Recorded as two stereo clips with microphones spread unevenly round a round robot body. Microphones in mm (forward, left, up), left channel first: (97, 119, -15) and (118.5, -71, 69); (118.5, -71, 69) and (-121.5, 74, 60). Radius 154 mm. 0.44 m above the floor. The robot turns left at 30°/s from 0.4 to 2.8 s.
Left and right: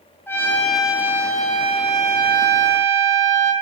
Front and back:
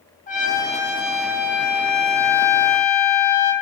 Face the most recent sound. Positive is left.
turn(degrees=-40)